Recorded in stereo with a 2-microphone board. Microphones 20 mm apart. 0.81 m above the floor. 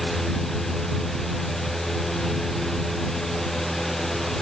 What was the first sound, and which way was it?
Only background noise.